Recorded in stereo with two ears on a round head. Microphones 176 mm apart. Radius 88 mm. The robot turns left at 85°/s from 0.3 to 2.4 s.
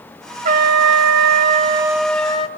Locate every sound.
0.5 s a trumpet: 45° right, 1.0 m; by 2.5 s 150° left, 1.0 m